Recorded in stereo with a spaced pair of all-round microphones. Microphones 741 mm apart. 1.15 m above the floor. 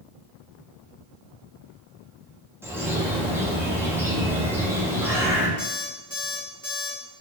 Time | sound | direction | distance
2.6 | a bird | 5° right (ahead or behind) | 0.6 m
5.6 | an alarm clock | 10° right (ahead or behind) | 1.7 m